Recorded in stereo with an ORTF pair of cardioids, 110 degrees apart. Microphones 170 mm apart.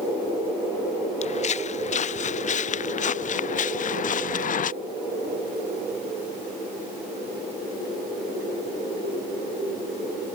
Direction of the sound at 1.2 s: 40° left.